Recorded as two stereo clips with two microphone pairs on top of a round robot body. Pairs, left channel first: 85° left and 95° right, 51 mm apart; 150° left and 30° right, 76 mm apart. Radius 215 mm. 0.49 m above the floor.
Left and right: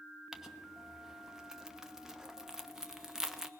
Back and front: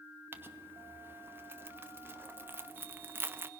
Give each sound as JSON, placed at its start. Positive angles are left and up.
{"t": 0.3, "sound": "crumpling", "azimuth_deg": -50, "distance_m": 1.4}